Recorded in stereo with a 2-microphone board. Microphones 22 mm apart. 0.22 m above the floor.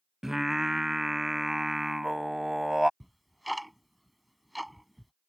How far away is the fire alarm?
No fire alarm in this recording.